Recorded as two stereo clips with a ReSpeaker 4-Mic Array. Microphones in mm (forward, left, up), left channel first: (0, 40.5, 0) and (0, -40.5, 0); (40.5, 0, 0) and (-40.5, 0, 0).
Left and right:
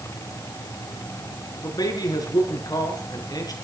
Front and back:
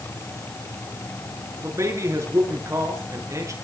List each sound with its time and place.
1.6 s a man speaking: 130° left, 6.5 m